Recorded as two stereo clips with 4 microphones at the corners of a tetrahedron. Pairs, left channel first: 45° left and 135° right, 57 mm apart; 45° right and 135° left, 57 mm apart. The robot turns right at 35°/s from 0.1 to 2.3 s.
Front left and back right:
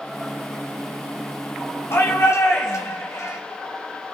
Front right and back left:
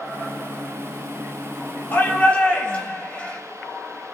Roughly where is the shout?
Ahead.